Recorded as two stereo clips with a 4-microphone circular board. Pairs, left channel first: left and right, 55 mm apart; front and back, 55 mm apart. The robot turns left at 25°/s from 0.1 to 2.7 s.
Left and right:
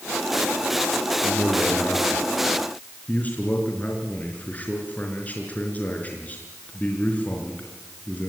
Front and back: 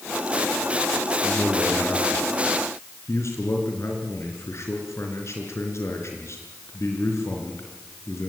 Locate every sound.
1.2 s a man speaking: 65° left, 4 m; by 8.3 s 30° left, 4 m